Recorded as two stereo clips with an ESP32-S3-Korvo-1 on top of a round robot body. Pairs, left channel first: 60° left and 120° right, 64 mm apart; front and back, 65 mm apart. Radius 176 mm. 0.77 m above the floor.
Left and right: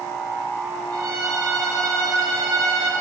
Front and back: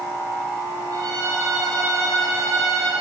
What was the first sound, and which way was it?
A violin, 150° right.